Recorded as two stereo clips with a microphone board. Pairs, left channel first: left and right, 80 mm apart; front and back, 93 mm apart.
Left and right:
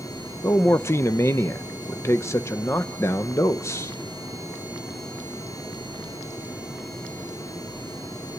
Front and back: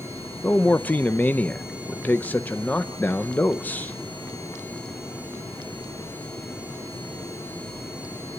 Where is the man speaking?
60° left, 0.5 m.